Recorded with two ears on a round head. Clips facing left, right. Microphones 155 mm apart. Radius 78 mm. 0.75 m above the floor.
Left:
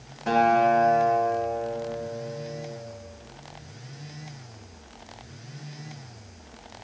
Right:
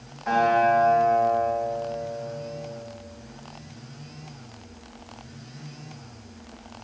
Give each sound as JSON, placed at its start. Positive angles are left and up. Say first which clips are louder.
{"t": 0.3, "sound": "a guitar", "louder": "even", "side_deg": 40, "distance_m": 1.2}